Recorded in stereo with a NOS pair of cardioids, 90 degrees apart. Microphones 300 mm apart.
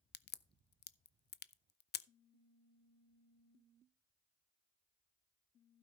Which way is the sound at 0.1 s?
35° left.